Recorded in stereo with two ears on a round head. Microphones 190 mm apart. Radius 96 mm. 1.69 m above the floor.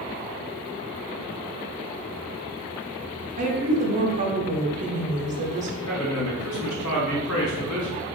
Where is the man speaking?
60° left (ahead or behind), 1.3 m.